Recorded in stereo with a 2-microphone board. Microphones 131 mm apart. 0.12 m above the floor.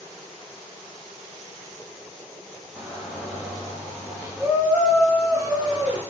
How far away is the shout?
About 1.7 m.